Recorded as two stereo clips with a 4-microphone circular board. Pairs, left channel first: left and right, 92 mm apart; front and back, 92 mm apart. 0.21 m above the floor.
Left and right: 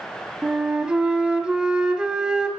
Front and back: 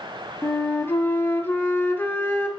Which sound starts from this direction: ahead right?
A flute, at 0.4 s.